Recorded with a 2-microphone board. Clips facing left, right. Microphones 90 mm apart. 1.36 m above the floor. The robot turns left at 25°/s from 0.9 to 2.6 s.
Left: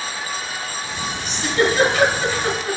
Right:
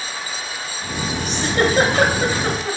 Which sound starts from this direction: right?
A giggle, at 1.2 s.